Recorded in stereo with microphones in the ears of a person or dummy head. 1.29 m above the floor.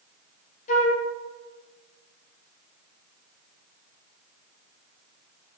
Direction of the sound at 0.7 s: 40° left (ahead or behind).